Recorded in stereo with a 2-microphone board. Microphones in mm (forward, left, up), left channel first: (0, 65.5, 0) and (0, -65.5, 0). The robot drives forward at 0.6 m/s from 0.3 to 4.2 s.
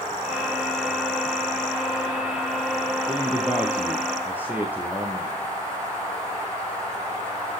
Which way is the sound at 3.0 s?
10° right (ahead or behind).